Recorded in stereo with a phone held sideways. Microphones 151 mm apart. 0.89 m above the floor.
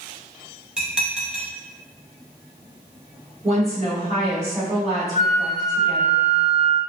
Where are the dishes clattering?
5° right (ahead or behind), 0.8 m.